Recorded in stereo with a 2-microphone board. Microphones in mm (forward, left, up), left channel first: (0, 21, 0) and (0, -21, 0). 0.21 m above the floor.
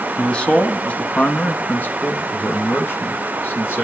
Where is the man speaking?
20° left (ahead or behind), 1.5 m; by 3.9 s 55° left (ahead or behind), 3.5 m.